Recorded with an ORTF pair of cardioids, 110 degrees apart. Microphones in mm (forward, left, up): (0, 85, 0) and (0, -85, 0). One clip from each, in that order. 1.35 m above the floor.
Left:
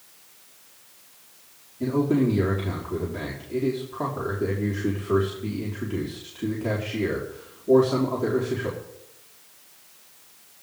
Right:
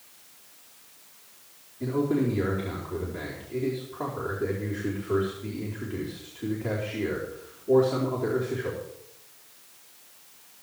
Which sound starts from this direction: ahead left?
A man speaking, at 1.8 s.